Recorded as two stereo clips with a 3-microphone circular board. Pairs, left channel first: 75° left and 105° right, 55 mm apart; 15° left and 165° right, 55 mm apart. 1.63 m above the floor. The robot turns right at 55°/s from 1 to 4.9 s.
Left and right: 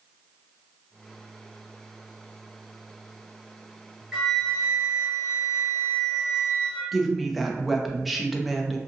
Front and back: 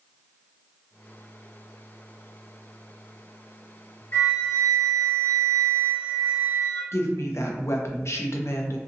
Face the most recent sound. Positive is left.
turn(degrees=-15)